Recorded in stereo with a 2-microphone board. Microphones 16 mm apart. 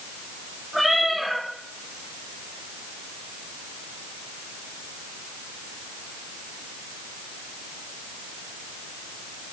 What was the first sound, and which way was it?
A cat meowing, 20° right (ahead or behind).